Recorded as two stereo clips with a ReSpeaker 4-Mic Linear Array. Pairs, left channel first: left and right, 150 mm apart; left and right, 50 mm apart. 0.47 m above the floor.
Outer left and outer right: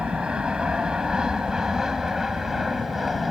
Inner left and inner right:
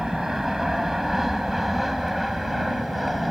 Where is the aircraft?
5° right (ahead or behind); by 3.3 s centre (ahead or behind).